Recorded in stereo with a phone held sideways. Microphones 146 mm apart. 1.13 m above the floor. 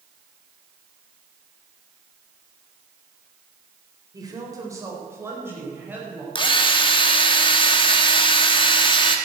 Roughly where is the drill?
Left.